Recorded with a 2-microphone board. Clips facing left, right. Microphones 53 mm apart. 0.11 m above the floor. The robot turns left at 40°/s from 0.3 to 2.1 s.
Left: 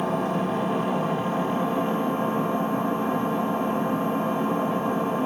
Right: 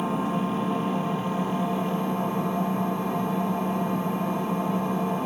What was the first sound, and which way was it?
An engine running, 115° left.